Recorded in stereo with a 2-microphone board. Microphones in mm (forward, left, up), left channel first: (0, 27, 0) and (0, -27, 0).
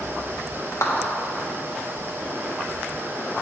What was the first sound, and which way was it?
A clap, 75° left (ahead or behind).